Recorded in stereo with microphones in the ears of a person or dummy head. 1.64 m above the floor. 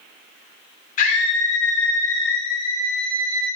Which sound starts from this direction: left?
A scream, at 1.0 s.